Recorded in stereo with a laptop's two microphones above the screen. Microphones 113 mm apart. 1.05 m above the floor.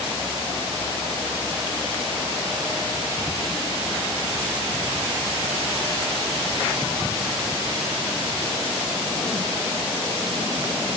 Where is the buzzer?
No buzzer in this recording.